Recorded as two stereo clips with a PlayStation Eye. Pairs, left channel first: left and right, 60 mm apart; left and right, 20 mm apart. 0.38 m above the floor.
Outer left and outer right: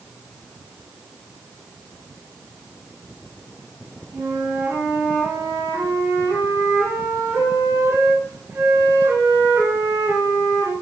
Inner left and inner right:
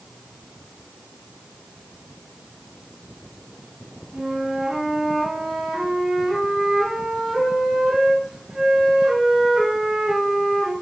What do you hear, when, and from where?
4.1 s a flute: 45° right (ahead or behind), 3 m